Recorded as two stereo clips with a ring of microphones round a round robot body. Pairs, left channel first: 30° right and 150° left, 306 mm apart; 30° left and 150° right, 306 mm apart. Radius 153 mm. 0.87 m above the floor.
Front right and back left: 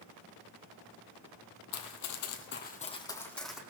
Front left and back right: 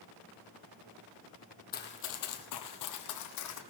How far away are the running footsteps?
About 1.7 m.